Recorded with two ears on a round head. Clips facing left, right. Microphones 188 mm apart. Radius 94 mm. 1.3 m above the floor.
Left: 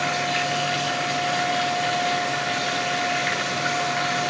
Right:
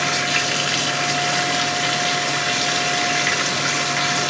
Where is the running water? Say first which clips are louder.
Even; 60° right (ahead or behind), 2 m.